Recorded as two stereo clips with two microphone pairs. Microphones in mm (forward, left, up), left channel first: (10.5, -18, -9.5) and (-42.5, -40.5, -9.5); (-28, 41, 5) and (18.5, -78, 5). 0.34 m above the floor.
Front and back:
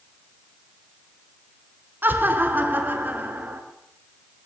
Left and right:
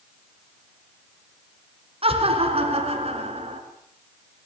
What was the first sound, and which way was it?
Laughter, 105° right.